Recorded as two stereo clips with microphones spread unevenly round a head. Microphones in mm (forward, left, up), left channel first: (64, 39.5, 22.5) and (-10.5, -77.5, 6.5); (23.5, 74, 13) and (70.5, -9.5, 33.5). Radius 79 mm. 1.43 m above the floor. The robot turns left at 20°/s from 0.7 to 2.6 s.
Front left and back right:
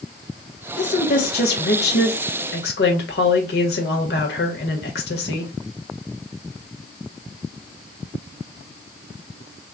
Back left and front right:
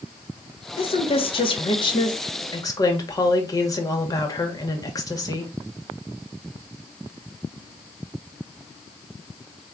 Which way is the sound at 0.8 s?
100° left.